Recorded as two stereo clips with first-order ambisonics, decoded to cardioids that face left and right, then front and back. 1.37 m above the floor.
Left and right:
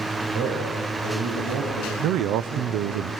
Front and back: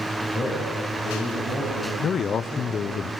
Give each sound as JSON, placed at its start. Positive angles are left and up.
{"t": 0.3, "sound": "a man speaking", "azimuth_deg": -105, "distance_m": 6.5}
{"t": 2.0, "sound": "a man speaking", "azimuth_deg": -60, "distance_m": 0.5}